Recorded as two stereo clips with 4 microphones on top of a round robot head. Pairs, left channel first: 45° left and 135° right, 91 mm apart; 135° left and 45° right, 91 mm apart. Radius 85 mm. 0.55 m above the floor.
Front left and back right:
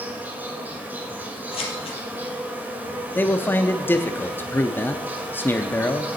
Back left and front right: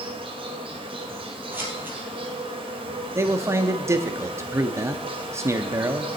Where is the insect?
65° right, 1.8 m.